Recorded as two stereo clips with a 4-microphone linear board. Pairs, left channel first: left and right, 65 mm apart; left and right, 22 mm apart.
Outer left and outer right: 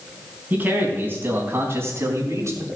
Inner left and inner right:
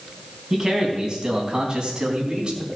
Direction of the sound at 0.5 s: 25° right (ahead or behind).